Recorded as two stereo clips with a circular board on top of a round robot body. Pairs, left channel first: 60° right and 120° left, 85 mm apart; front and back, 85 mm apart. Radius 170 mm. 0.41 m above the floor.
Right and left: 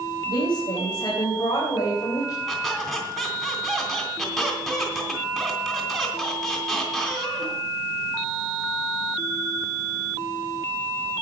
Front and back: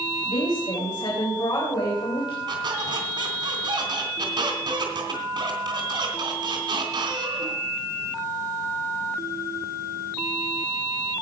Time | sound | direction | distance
0.2 | a woman speaking | 30° right | 4 m
2.5 | a squeak | 150° right | 3 m